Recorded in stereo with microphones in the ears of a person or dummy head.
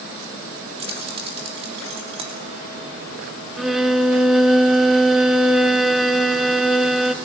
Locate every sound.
0.8 s keys jangling: 35° right (ahead or behind), 2.5 m
3.6 s a violin: centre (ahead or behind), 0.9 m